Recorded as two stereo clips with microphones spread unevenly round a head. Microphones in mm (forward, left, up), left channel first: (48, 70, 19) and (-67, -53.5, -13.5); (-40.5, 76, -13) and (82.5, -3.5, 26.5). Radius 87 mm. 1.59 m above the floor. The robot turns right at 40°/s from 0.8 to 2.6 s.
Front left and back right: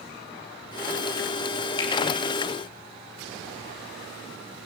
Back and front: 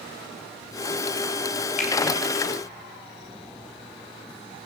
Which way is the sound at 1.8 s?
110° left.